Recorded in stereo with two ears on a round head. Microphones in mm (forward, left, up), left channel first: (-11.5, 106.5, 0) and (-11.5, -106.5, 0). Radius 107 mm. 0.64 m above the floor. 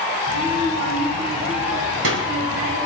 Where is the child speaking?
55° right (ahead or behind), 4 m.